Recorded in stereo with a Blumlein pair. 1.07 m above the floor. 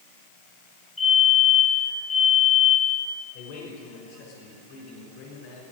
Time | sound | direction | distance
1.0 | a fire alarm | 5° left | 6 m
3.3 | a man speaking | 40° left | 5.5 m